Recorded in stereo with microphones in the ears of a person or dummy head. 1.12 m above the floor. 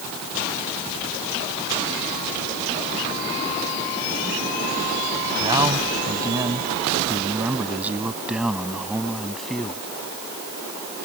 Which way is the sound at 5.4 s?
25° right (ahead or behind).